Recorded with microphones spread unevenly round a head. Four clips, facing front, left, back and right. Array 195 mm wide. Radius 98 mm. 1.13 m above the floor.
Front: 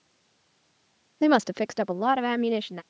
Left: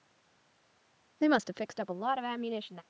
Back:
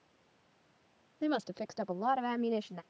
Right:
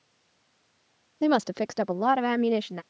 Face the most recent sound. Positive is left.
turn(degrees=-50)